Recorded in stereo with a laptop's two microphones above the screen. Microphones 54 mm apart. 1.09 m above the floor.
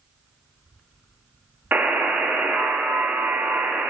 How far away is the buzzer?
About 0.6 m.